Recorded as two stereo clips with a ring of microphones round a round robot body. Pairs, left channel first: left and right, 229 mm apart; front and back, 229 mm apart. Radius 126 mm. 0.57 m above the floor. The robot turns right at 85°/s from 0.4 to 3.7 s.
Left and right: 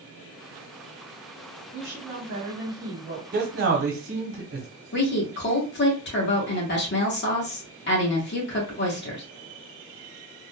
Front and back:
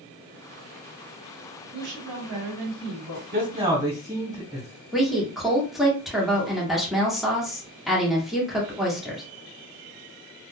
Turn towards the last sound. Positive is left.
turn(degrees=90)